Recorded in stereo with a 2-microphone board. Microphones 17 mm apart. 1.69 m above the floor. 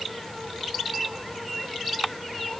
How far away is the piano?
I don't hear a piano.